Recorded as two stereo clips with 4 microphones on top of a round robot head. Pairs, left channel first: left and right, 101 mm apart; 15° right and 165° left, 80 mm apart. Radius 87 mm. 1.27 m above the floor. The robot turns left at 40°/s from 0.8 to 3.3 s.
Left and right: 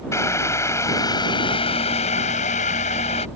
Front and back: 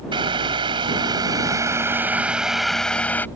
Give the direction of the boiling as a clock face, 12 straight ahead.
7 o'clock.